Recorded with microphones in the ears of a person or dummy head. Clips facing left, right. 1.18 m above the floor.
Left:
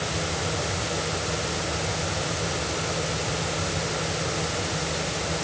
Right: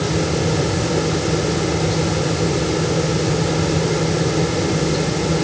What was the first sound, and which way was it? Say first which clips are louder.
A fan: right 11 dB; 80° right.